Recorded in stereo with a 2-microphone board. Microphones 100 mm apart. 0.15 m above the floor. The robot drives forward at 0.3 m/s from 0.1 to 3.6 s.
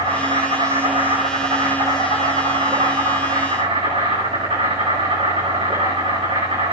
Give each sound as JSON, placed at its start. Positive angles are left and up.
{"t": 0.0, "sound": "an insect", "side_deg": -75, "distance_m": 9.0}